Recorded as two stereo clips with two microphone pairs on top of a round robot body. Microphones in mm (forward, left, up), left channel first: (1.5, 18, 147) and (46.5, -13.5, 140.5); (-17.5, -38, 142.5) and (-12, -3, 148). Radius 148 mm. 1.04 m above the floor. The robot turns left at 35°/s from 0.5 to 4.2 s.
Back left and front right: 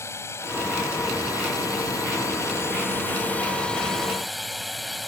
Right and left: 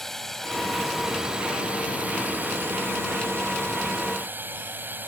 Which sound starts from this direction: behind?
A drone, at 0.0 s.